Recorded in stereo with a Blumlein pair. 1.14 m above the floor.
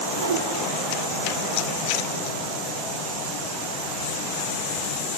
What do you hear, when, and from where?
0.2 s a whoosh: 65° right, 2 m